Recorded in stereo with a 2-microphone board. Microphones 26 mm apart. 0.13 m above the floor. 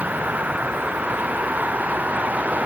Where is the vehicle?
65° right (ahead or behind).